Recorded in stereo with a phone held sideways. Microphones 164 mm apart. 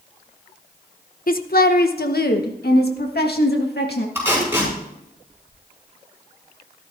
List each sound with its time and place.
1.3 s a woman speaking: 60° left (ahead or behind), 0.9 m; by 4.0 s 75° left (ahead or behind), 2.5 m
4.2 s tape being pulled: 15° right (ahead or behind), 6.5 m